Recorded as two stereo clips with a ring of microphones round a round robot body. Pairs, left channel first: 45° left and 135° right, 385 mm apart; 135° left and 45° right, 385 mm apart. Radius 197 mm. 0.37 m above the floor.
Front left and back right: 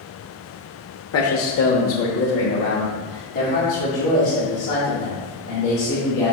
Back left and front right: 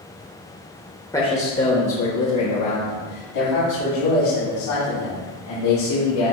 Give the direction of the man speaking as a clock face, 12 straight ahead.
10 o'clock.